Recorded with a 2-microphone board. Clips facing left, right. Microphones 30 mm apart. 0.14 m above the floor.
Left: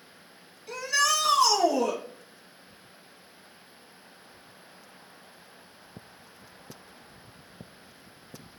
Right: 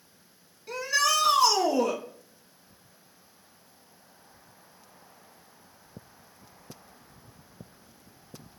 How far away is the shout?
About 1.0 m.